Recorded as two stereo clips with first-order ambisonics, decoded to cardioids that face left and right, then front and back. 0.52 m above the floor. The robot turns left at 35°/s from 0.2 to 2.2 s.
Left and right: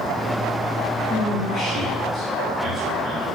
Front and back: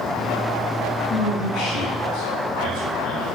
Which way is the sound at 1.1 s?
20° left.